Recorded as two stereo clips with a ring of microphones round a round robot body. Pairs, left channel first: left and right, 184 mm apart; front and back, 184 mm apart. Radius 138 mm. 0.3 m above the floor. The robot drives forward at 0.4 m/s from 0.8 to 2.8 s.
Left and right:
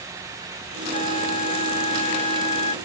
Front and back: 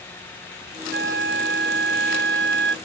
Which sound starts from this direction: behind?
A flute, at 0.9 s.